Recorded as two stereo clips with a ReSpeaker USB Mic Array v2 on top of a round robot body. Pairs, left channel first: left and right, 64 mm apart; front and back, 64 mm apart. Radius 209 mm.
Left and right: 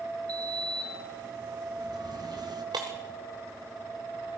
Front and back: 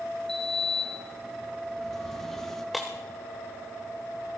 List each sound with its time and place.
0.3 s a sliding door: 85° right, 1.8 m
2.7 s breaking glass: 90° right, 0.9 m